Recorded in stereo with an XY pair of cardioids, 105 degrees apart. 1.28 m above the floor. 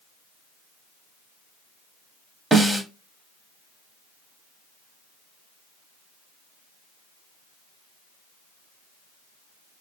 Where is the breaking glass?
I don't hear breaking glass.